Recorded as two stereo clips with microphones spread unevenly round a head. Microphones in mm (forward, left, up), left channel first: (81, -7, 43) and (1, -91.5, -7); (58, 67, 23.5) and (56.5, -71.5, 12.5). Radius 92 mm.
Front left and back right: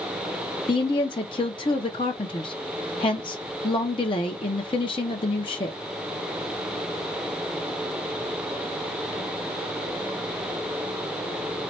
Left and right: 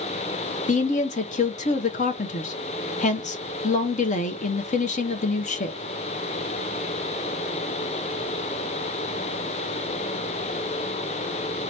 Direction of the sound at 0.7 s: 115° left.